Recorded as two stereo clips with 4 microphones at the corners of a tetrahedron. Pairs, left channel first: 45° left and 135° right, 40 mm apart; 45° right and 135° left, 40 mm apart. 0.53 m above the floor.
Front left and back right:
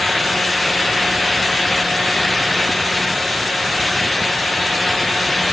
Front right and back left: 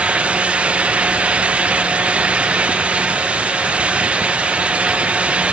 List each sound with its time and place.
Only background noise.